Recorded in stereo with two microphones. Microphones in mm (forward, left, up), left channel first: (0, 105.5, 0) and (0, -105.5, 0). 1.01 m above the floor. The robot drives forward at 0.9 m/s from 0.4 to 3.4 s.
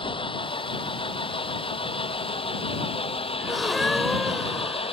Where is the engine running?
25° left (ahead or behind); by 4.9 s 30° left (ahead or behind).